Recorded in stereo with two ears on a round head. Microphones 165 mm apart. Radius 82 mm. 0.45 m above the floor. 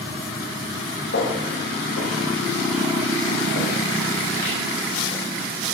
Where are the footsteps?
60° left (ahead or behind), 9.5 m; by 5.5 s 75° left (ahead or behind), 12 m.